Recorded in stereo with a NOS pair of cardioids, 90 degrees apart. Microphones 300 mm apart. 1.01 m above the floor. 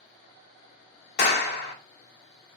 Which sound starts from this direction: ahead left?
A clap, at 1.2 s.